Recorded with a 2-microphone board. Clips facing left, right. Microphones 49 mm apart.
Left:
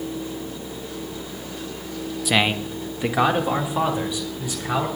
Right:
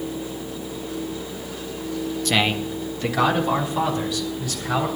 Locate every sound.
2.2 s a man speaking: 10° left (ahead or behind), 0.5 m; by 4.9 s 20° left (ahead or behind), 3.5 m